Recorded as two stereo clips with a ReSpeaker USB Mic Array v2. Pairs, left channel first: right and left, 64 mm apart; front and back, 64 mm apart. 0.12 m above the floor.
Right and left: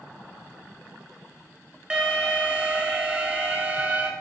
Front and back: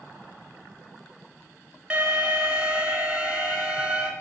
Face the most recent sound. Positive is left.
turn(degrees=130)